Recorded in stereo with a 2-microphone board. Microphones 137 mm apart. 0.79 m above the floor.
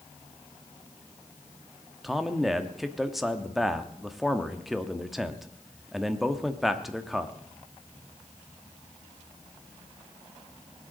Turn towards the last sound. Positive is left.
turn(degrees=0)  # may be behind; listen again after turning